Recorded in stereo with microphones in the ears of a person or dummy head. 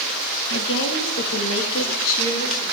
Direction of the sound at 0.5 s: 65° left (ahead or behind).